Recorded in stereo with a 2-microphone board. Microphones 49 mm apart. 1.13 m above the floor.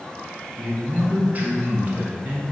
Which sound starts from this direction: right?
A man speaking, at 0.6 s.